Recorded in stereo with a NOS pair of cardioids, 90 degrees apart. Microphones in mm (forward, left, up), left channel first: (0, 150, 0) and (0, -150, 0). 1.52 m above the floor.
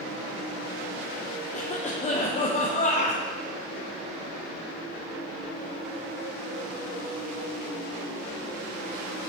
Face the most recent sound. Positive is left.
turn(degrees=25)